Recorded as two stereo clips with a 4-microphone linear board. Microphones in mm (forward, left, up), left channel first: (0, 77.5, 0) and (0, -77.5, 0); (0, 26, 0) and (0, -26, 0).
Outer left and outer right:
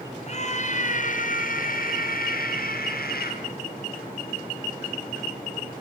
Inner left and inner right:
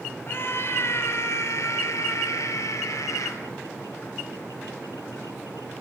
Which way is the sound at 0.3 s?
45° left (ahead or behind).